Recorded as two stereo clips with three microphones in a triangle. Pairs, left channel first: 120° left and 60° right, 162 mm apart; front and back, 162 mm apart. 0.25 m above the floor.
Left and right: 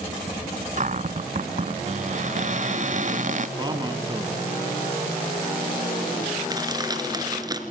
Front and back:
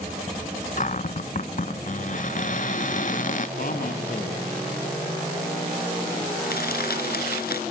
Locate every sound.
0.8 s a cupboard door: 30° right, 0.5 m
3.6 s a man speaking: straight ahead, 3 m
6.4 s crushing: 5° left, 2.5 m